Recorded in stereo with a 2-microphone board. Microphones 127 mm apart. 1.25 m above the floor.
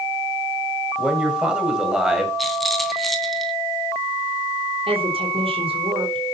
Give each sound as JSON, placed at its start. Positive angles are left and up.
{"t": 1.0, "sound": "a man speaking", "side_deg": -10, "distance_m": 6.0}
{"t": 2.4, "sound": "a rattle", "side_deg": 0, "distance_m": 3.0}
{"t": 4.9, "sound": "a woman speaking", "side_deg": -50, "distance_m": 4.0}